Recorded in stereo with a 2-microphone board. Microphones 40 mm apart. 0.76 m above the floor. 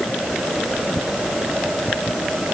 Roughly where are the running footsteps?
I don't hear running footsteps.